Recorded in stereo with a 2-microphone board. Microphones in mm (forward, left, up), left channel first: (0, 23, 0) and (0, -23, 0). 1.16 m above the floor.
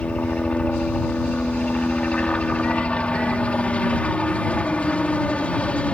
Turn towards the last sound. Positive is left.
turn(degrees=25)  # may be behind; listen again after turning